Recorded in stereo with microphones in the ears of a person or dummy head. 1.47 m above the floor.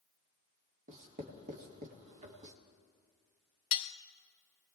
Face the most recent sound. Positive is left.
turn(degrees=35)  # may be behind; listen again after turning